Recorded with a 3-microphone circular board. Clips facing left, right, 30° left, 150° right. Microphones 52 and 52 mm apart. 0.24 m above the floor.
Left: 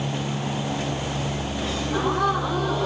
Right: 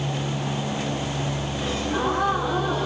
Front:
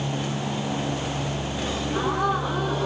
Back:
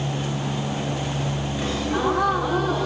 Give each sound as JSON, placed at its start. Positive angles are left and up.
{"t": 1.6, "sound": "a gasp", "azimuth_deg": -170, "distance_m": 8.0}